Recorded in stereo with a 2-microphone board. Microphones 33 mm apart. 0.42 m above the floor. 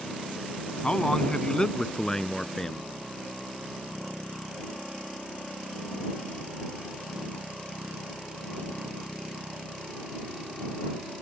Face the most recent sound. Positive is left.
turn(degrees=15)  # may be behind; listen again after turning